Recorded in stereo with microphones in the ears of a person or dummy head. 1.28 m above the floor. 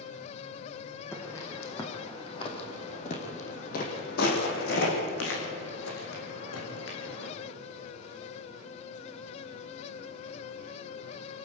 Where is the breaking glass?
No breaking glass in this recording.